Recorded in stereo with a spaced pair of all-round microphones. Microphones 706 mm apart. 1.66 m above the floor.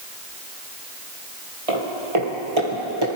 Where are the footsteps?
50° right (ahead or behind), 3 m; by 3.1 s 35° right (ahead or behind), 2.5 m.